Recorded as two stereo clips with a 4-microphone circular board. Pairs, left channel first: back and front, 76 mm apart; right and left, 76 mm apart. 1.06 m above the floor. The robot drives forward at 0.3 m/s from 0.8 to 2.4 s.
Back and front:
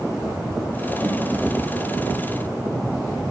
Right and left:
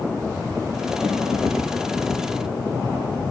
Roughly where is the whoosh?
Ahead left.